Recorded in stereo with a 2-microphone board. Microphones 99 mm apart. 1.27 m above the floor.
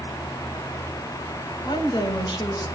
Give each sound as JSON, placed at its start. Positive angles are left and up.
{"t": 1.6, "sound": "a woman speaking", "side_deg": 45, "distance_m": 8.0}